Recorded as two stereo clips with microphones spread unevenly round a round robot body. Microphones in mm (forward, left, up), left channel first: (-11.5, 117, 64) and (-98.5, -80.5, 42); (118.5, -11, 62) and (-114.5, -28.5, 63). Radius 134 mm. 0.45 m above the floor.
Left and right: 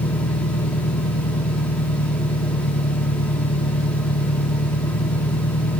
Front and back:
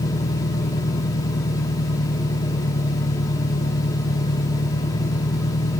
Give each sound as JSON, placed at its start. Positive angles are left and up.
{"t": 0.0, "sound": "an engine running", "azimuth_deg": 65}